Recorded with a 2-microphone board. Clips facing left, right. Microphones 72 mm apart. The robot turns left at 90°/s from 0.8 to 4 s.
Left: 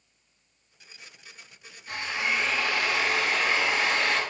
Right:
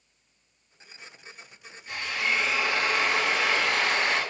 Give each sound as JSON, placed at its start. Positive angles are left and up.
{"t": 1.9, "sound": "a drill", "azimuth_deg": 55, "distance_m": 5.0}